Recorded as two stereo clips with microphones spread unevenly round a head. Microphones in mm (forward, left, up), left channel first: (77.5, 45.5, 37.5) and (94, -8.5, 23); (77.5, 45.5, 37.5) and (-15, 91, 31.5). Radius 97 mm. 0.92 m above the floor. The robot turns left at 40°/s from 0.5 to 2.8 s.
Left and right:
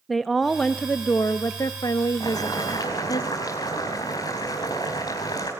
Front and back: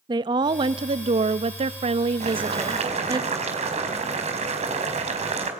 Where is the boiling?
170° left, 5 m; by 5.5 s 145° left, 5 m.